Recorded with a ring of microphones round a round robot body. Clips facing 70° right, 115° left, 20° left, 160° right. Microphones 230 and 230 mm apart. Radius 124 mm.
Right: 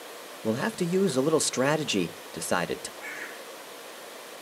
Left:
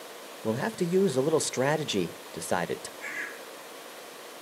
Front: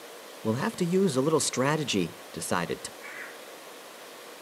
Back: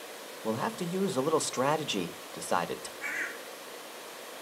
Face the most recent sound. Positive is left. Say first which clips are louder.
# even, back 2 dB
turn(degrees=170)